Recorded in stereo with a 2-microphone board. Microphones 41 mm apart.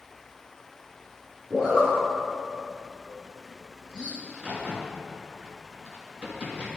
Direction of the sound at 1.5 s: 20° right (ahead or behind).